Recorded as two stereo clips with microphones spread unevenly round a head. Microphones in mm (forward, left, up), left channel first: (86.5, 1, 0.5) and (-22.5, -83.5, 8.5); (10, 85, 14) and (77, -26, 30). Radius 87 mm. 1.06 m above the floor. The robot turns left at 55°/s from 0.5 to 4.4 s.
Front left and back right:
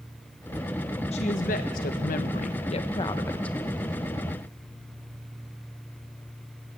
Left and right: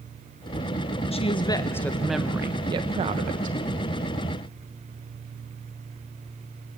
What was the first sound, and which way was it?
A woman speaking, 85° left.